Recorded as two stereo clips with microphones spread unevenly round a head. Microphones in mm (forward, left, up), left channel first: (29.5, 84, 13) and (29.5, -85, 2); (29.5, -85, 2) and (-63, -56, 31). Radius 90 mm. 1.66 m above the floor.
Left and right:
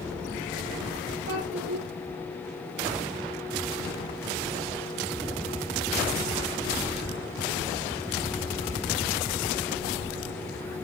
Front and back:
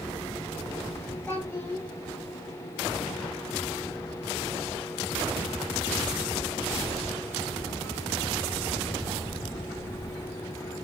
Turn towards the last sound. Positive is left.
turn(degrees=-95)